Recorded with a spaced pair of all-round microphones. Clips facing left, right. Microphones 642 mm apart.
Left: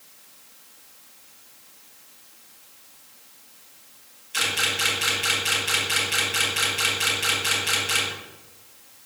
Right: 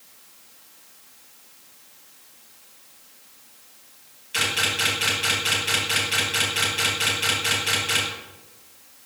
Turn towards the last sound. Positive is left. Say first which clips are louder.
# right 2 dB
turn(degrees=-75)  # may be behind; listen again after turning